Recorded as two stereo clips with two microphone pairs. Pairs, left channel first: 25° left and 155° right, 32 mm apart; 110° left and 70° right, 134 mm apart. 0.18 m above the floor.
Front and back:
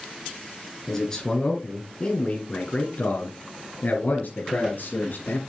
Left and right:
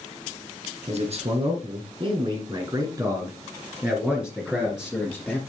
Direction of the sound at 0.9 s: 50° right.